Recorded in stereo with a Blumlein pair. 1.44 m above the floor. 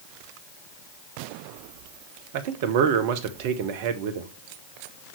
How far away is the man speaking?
About 0.9 m.